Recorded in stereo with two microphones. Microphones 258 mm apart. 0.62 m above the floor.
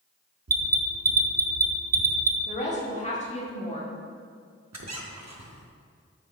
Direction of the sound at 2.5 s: 25° left (ahead or behind).